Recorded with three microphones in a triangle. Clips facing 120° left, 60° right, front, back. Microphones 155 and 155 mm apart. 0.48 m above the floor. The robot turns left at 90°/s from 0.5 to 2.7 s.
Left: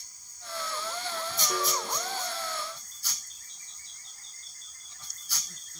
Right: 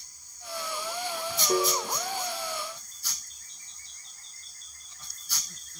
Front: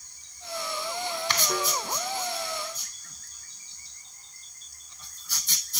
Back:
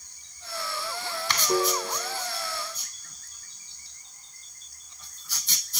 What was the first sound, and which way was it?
A piano, 115° right.